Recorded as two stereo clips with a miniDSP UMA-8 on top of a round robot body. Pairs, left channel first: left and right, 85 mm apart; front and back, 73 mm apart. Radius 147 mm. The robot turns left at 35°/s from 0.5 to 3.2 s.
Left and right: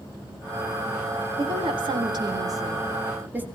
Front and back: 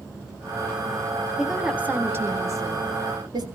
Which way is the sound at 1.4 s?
95° right.